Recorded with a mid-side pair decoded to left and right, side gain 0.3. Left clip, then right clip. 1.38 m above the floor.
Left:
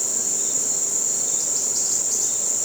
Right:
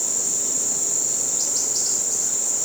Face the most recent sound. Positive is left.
No sound to turn to.